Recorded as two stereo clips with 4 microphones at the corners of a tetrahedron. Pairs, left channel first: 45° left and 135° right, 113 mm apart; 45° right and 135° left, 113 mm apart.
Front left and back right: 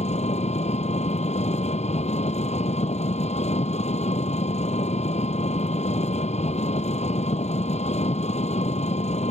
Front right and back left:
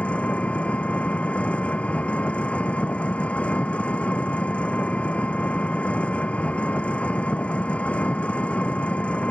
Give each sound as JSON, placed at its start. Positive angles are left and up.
{"t": 0.0, "sound": "an engine running", "azimuth_deg": 35}